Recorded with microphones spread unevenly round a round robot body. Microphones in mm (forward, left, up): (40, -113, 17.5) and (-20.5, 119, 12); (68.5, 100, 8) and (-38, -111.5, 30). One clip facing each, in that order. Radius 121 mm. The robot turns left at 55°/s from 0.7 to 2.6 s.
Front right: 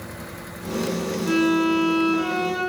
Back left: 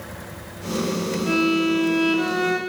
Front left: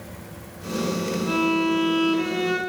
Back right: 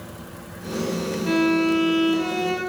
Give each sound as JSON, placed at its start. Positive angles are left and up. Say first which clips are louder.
{"t": 1.3, "sound": "a violin", "louder": "front right 1 dB, back right 4 dB", "azimuth_deg": -170, "distance_m": 1.7}